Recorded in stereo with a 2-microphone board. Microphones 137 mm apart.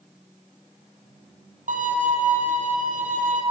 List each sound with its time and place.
1.7 s a violin: 70° right (ahead or behind), 1.0 m